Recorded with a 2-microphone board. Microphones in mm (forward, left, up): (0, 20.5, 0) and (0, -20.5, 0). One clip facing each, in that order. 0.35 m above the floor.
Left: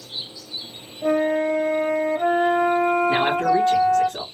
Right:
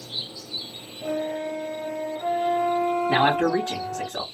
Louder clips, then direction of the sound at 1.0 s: Left 8 dB; 70° left (ahead or behind).